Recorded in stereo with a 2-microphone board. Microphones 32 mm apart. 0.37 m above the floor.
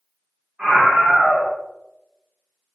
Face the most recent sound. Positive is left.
turn(degrees=-25)  # may be behind; listen again after turning